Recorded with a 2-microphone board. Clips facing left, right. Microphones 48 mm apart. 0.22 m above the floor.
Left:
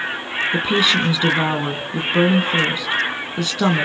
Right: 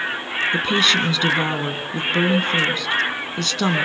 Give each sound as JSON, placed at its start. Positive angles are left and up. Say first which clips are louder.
{"t": 0.5, "sound": "a woman speaking", "louder": "left 1 dB", "side_deg": 5, "distance_m": 2.0}